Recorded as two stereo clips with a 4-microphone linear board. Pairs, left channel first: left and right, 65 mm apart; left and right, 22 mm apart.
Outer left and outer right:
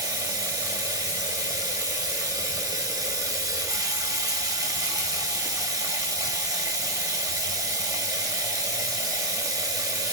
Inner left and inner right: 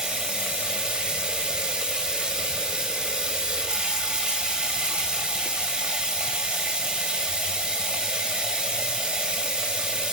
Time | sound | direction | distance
0.0 | running water | 65° right (ahead or behind) | 1.6 m